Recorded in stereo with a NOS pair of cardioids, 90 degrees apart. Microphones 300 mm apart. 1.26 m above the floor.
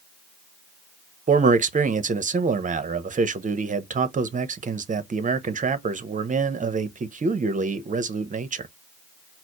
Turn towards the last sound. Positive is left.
turn(degrees=-25)